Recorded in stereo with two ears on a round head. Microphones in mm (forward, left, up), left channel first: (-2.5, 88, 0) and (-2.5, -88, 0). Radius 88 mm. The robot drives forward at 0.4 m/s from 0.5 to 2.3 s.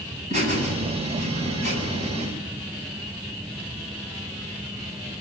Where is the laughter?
40° right (ahead or behind), 8 m; by 2.3 s 35° right (ahead or behind), 8.5 m.